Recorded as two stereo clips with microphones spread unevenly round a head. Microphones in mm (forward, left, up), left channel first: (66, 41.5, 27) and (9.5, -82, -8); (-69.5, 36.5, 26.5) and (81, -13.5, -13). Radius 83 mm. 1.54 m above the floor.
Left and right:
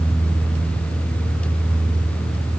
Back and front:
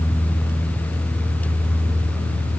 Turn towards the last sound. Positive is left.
No sound to turn to.